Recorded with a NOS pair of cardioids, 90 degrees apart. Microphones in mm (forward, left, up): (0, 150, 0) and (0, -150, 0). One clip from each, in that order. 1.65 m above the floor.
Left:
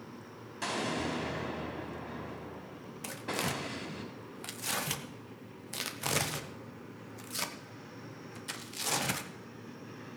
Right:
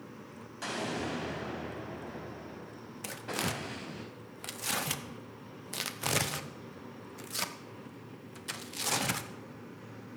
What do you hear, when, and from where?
0.6 s an explosion: 20° left, 5 m
3.0 s tearing paper: 5° right, 1.0 m